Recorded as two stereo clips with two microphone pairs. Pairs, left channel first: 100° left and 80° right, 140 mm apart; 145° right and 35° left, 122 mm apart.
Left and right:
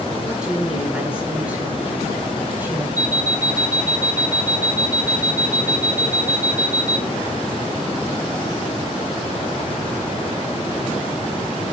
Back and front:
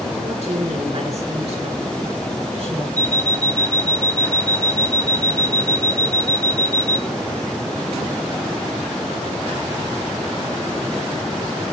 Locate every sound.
0.3 s a woman speaking: 5° left, 9 m; by 2.9 s 5° right, 8 m
3.0 s an alarm clock: 155° right, 2.5 m